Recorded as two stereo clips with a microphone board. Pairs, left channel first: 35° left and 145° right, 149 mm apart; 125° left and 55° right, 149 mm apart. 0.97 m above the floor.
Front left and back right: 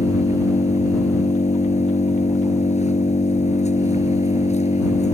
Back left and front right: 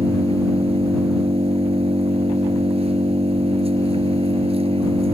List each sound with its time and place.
0.0 s an engine running: 5° right